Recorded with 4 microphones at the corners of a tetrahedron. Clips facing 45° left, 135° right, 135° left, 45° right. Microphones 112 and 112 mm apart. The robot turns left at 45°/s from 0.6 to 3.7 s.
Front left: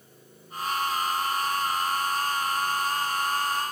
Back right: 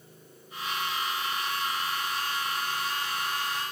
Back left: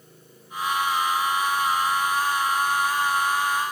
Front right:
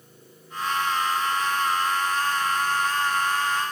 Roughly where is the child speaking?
I don't hear a child speaking.